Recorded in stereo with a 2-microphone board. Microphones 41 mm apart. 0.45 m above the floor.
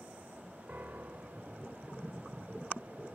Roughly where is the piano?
Right.